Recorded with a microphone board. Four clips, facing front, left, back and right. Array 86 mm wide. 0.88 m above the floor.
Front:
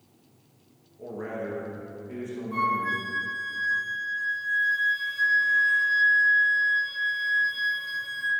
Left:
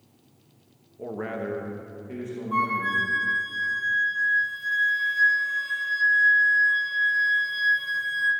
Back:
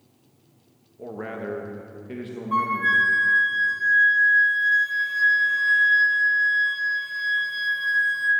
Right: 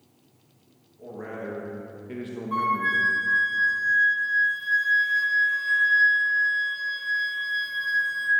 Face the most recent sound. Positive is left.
turn(degrees=-165)